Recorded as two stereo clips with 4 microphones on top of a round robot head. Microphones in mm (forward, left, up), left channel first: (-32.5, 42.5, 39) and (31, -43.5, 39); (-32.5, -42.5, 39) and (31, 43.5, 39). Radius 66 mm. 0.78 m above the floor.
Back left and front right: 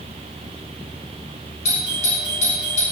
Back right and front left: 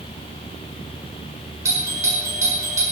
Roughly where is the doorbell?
Behind left.